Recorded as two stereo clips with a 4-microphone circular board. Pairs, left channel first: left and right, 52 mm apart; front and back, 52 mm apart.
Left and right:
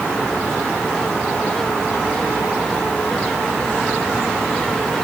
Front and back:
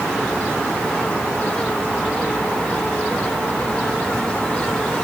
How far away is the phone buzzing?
No phone buzzing in this recording.